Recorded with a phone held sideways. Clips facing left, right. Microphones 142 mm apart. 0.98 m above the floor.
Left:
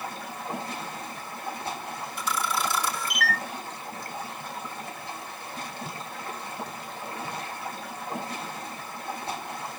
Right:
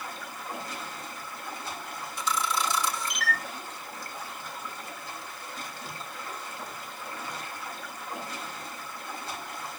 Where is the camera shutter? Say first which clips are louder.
Even; 55° left (ahead or behind), 3 m.